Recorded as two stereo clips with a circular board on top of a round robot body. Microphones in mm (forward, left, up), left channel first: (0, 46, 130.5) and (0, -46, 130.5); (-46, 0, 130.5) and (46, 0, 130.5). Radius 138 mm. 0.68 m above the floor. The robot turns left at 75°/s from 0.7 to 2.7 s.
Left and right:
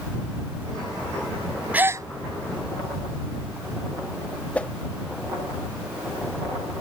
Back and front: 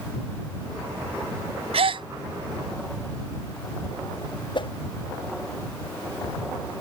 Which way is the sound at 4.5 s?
165° left.